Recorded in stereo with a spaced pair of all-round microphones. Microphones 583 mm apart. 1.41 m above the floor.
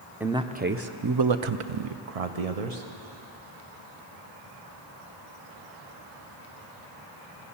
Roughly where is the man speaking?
Centre.